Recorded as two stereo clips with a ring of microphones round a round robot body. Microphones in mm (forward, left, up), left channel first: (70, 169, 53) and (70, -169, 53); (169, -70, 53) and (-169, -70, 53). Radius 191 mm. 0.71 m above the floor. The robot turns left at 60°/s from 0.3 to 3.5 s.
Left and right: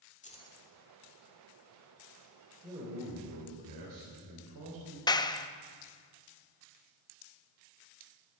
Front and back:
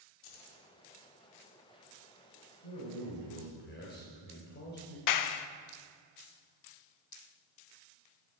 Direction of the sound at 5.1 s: 15° left.